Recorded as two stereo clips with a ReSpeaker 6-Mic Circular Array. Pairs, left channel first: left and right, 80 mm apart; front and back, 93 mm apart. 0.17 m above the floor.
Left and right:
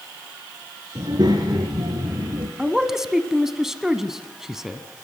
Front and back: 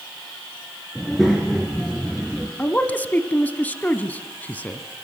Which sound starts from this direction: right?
A child speaking, at 0.9 s.